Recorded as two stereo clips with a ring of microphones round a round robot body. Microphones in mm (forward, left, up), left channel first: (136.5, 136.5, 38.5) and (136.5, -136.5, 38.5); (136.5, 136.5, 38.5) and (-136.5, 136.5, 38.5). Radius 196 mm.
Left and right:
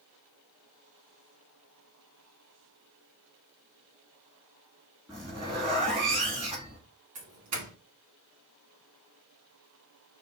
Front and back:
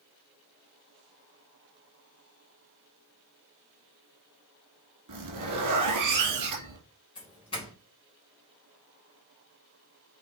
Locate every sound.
5.1 s a zipper: 175° right, 3.5 m
7.2 s a doorbell: 75° right, 2.5 m